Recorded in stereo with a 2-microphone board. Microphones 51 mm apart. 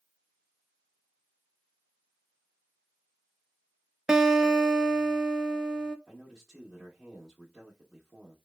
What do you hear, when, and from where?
4.1 s a guitar: 15° right (ahead or behind), 0.5 m
6.1 s a man speaking: 5° right (ahead or behind), 1.3 m